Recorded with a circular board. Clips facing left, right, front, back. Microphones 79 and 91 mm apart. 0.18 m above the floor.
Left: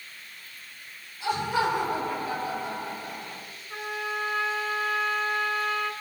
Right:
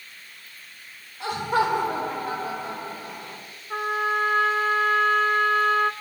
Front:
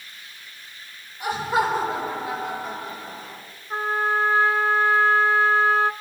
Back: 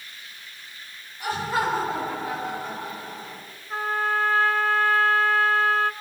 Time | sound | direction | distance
1.2 | laughter | 70° right | 8 m
3.7 | a trumpet | 65° right | 0.8 m